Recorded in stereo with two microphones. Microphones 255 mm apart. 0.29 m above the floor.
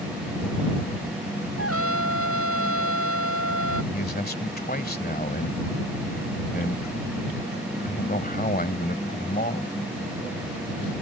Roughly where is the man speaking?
Left.